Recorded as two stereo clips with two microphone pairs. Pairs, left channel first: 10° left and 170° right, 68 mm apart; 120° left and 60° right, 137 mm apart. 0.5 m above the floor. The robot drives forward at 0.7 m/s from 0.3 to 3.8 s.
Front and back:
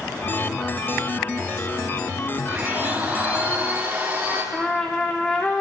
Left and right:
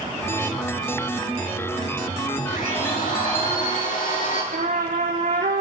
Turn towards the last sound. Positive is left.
turn(degrees=-65)